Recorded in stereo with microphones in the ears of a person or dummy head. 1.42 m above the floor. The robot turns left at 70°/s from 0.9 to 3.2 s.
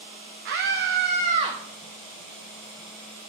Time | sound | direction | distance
0.5 | a scream | 115° right | 1.0 m